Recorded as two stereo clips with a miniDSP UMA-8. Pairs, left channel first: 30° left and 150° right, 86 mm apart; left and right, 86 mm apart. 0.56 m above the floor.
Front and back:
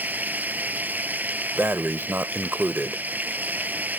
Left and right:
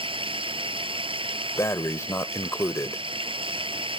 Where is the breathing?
145° left.